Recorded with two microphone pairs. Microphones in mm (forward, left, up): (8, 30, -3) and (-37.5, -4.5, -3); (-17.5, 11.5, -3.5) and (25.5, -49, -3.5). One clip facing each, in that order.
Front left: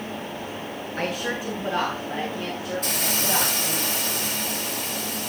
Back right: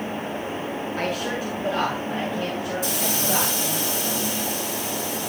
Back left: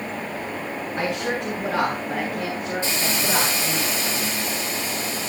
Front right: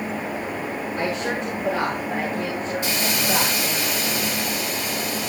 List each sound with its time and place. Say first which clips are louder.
1.0 s a woman speaking: front left 1 dB, back left 1 dB; 140° left, 5.5 m; by 3.8 s 135° left, 9 m
2.8 s a hiss: back right 1 dB, front right 1 dB; 65° left, 2 m